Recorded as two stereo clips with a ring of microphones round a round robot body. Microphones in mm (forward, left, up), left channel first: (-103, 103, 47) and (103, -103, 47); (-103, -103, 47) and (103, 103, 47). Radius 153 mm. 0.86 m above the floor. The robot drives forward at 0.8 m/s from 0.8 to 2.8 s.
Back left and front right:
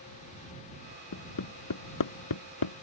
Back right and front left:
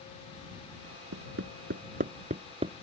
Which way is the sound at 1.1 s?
95° left.